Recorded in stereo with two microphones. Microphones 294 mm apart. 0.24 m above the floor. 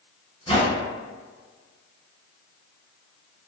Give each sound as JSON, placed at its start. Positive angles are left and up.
{"t": 0.5, "sound": "a whoosh", "side_deg": -50, "distance_m": 0.7}